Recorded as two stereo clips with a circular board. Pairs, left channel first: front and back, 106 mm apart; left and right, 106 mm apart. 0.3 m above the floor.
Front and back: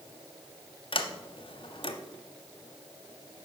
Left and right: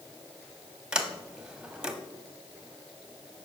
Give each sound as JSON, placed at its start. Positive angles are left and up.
{"t": 0.9, "sound": "a sliding door", "azimuth_deg": -10, "distance_m": 0.9}